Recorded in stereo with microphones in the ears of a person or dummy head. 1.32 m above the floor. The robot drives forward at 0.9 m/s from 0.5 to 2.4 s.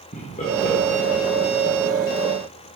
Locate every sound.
0.1 s laughter: 45° left (ahead or behind), 1.5 m; by 1.8 s 85° left, 1.1 m